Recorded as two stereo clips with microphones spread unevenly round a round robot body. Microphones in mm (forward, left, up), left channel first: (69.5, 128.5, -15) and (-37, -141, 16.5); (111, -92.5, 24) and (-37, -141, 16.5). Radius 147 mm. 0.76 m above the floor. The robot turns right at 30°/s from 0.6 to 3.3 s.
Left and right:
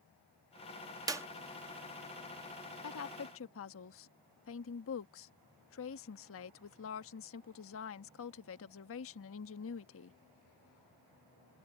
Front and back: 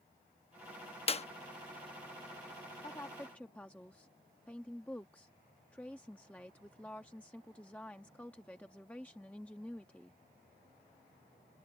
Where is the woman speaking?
90° left; by 10.2 s 105° left.